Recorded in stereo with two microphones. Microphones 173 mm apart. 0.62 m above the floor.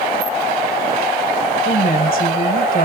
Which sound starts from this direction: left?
A woman speaking, at 1.6 s.